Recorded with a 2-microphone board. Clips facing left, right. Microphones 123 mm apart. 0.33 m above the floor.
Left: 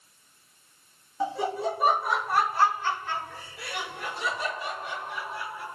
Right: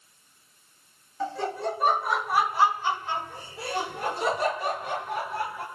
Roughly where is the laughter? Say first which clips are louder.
Left 1 dB; centre.